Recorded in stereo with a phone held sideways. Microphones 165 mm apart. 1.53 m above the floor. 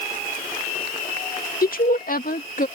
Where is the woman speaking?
70° left (ahead or behind); by 2.7 s 65° left (ahead or behind).